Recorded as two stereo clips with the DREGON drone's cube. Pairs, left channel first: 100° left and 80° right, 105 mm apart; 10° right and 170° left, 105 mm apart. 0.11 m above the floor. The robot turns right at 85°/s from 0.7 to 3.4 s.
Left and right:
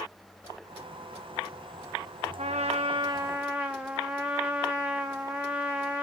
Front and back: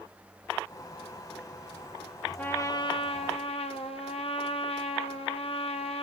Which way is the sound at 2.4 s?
90° right.